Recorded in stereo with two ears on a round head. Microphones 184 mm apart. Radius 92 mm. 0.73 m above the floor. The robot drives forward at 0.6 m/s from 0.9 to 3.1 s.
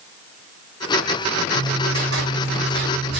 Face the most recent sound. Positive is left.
turn(degrees=-55)  # may be behind; listen again after turning